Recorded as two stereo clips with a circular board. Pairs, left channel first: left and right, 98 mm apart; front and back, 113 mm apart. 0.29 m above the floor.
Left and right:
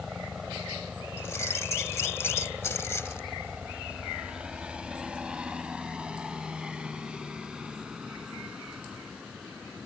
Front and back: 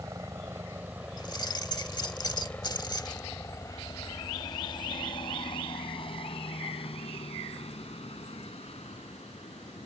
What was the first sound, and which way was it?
A helicopter, 165° right.